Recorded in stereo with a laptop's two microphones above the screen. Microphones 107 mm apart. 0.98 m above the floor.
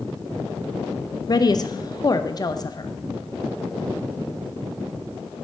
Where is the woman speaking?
40° left (ahead or behind), 0.6 m.